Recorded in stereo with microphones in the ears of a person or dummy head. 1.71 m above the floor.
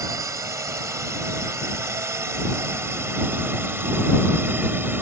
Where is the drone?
15° right (ahead or behind); by 5.0 s 10° right (ahead or behind).